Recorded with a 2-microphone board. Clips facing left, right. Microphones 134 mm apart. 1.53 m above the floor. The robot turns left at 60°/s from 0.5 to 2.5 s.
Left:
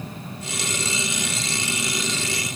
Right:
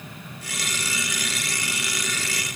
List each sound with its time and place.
Only background noise.